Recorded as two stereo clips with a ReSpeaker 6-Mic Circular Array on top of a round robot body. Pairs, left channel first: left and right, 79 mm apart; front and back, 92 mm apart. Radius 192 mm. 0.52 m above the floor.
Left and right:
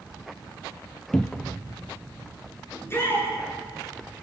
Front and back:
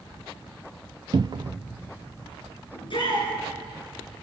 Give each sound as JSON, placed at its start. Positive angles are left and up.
{"t": 1.1, "sound": "a cupboard door", "azimuth_deg": 170, "distance_m": 0.8}
{"t": 2.7, "sound": "a shout", "azimuth_deg": 30, "distance_m": 8.5}